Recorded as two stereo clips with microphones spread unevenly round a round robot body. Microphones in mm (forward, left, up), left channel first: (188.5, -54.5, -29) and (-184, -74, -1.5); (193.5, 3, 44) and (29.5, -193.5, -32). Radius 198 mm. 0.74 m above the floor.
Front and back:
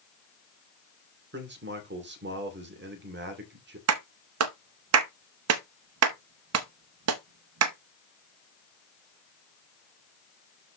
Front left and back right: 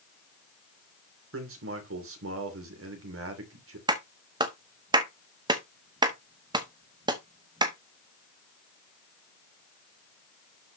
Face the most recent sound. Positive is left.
turn(degrees=-160)